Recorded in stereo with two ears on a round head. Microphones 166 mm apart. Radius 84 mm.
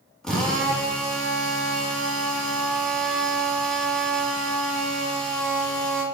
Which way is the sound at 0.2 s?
5° left (ahead or behind).